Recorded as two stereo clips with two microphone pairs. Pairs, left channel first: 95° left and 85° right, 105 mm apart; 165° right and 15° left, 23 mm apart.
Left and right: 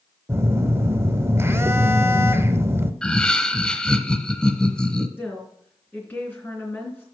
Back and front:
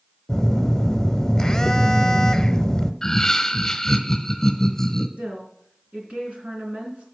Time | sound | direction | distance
0.3 | a phone buzzing | 120° right | 0.7 m
3.0 | laughter | 165° left | 1.1 m
5.2 | a woman speaking | 25° left | 3.5 m